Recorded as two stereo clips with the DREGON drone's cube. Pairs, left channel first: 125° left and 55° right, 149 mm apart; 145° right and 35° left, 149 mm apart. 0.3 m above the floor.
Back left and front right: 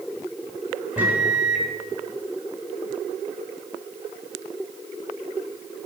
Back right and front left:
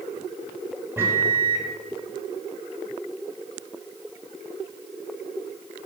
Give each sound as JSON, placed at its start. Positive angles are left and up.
{"t": 1.0, "sound": "a microwave", "azimuth_deg": 0, "distance_m": 1.2}